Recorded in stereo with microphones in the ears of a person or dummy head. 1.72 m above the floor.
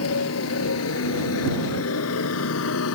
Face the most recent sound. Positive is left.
turn(degrees=80)